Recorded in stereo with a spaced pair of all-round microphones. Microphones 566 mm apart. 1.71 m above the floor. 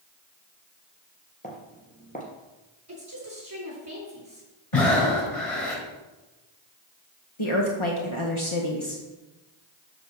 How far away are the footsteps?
About 3 m.